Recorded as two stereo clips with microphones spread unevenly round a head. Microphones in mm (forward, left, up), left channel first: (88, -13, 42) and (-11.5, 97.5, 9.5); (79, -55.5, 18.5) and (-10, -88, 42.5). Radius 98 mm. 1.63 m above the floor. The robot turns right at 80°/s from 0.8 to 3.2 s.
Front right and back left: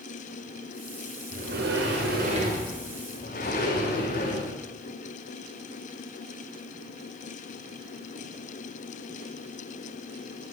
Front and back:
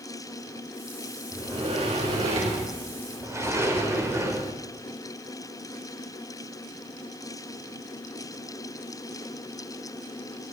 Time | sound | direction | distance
1.3 | a sliding door | 110° left | 4.5 m